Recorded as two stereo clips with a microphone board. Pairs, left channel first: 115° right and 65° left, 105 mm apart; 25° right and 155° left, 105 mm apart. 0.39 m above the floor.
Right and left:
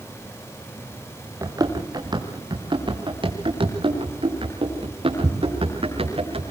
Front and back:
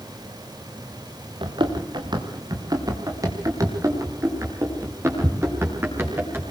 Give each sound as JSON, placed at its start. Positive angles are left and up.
{"t": 1.4, "sound": "running footsteps", "azimuth_deg": 120, "distance_m": 3.5}